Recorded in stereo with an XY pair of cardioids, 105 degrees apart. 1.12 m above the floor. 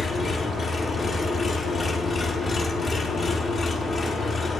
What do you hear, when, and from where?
0.0 s an engine running: 45° left, 1.2 m